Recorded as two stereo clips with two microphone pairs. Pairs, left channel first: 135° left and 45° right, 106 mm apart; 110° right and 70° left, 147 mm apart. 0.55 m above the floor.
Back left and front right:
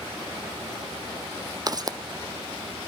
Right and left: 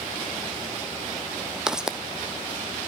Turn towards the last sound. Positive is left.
turn(degrees=-10)